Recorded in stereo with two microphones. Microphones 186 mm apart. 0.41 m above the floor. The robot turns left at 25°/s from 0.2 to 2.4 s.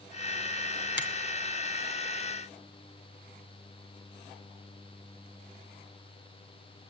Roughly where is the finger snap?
Left.